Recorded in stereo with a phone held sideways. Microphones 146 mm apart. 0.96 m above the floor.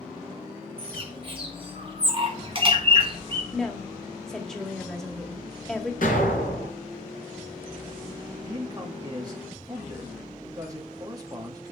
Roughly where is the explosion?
Left.